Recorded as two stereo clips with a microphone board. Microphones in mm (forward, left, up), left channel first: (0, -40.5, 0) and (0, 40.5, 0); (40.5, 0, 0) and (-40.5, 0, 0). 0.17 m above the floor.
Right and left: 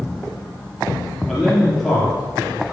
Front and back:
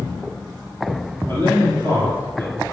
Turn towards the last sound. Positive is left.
turn(degrees=-175)